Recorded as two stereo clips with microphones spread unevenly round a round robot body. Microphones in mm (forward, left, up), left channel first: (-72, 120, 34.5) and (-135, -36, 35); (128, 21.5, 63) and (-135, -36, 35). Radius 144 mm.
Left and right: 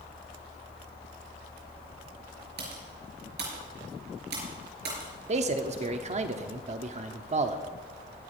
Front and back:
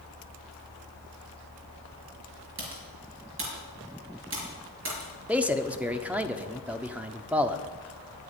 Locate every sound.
2.6 s typing on a keyboard: 120° right, 5 m
5.3 s a man speaking: 90° right, 1.0 m